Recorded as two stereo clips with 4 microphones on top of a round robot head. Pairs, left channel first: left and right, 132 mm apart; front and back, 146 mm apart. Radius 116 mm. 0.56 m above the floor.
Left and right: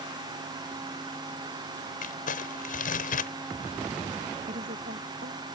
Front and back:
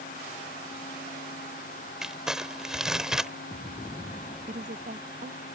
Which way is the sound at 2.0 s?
95° left.